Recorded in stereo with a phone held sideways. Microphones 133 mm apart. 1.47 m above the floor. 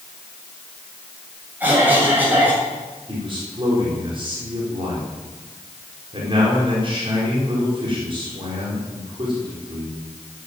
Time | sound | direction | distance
1.6 | a cough | 15° right (ahead or behind) | 7 m
3.1 | a man speaking | 40° right (ahead or behind) | 4.5 m